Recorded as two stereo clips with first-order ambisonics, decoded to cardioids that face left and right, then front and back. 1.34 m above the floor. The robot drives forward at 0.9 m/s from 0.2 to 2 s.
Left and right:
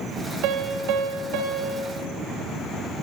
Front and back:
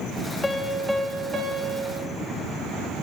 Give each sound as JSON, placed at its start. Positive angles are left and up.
{"t": 0.4, "sound": "a piano", "azimuth_deg": -80, "distance_m": 1.3}